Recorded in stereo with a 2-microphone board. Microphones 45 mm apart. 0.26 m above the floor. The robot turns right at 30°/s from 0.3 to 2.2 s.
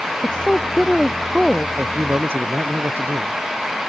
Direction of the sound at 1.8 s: 50° right (ahead or behind).